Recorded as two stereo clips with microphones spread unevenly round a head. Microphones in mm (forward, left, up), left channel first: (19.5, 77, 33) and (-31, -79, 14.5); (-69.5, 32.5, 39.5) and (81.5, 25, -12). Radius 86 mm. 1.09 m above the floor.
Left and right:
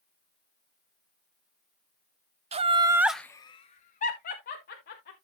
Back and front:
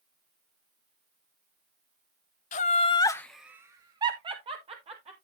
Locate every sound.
2.5 s laughter: 130° right, 0.9 m; by 5.2 s 35° left, 2 m